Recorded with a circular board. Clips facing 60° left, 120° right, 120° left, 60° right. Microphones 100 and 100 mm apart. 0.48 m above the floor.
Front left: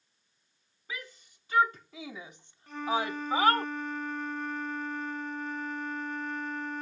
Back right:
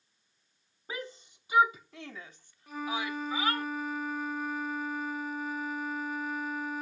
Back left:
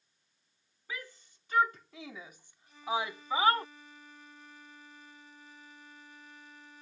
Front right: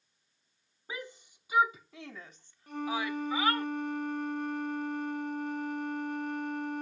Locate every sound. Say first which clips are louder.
0.9 s a shout: back right 3 dB, front right 2 dB; 105° right; by 3.7 s 70° left
2.7 s a flute: front left 4 dB, front right 1 dB; 35° right